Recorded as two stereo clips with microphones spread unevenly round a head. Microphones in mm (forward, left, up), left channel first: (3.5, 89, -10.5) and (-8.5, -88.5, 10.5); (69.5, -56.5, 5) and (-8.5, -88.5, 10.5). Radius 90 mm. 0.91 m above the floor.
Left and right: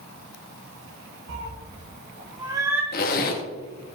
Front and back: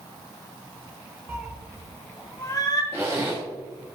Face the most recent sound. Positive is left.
turn(degrees=125)